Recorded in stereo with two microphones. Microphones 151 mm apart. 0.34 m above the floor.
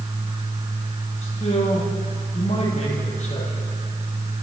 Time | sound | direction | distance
1.2 | a man speaking | 50° left (ahead or behind) | 9.5 m